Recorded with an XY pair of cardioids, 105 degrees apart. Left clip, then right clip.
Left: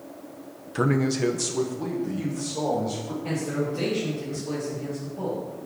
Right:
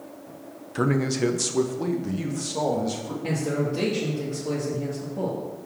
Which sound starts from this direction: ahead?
A man speaking, at 0.8 s.